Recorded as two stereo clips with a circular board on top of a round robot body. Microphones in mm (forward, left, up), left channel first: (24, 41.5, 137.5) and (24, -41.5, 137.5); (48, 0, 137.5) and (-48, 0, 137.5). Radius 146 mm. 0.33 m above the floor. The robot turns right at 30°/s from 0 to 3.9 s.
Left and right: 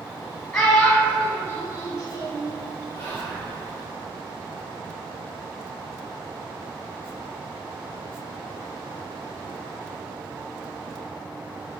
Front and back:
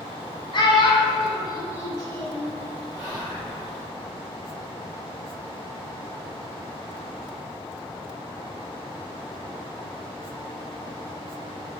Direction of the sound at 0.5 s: 5° left.